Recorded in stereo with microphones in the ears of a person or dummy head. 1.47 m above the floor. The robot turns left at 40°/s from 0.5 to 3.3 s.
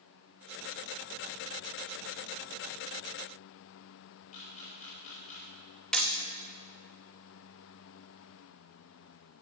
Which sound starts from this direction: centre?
Hammering, at 5.9 s.